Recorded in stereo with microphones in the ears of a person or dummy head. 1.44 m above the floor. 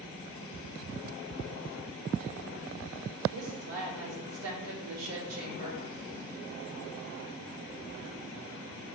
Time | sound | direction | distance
3.3 | a woman speaking | 80° right | 3 m